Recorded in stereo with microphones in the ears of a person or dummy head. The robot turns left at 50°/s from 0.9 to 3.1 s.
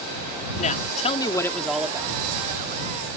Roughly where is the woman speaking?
Ahead left.